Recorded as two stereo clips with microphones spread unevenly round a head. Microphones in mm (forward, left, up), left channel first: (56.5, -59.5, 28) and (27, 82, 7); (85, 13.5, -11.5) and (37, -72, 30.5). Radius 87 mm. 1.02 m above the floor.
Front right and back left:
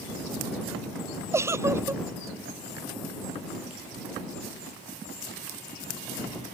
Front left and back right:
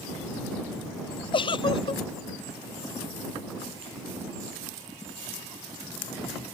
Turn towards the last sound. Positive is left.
turn(degrees=30)